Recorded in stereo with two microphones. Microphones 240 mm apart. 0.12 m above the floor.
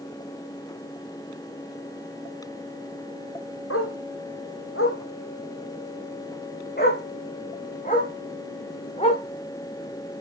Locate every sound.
3.7 s a dog barking: 80° left, 2.5 m; by 9.2 s 30° left (ahead or behind), 4 m